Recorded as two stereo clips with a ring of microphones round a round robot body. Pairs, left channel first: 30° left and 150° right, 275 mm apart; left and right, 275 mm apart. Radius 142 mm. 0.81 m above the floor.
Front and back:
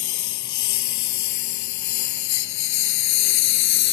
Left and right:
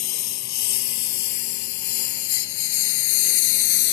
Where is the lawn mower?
60° left; by 4.0 s 65° left.